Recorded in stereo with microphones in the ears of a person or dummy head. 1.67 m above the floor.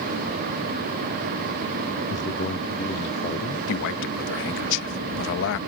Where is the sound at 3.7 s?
70° left (ahead or behind).